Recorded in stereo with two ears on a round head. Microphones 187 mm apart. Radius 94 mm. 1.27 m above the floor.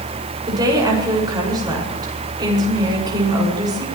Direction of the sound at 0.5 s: 20° right (ahead or behind).